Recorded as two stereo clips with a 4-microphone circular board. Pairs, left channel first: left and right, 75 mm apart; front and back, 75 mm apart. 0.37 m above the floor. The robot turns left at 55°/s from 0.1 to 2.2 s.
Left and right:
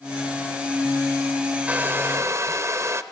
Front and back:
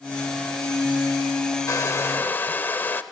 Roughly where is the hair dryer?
Ahead right.